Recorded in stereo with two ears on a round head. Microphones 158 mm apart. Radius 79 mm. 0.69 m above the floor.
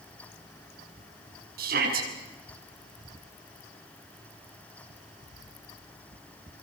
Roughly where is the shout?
Right.